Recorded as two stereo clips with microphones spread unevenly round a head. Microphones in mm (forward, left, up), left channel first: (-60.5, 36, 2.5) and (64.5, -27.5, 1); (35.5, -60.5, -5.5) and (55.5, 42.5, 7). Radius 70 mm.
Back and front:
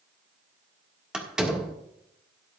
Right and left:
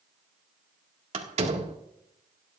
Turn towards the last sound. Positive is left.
turn(degrees=60)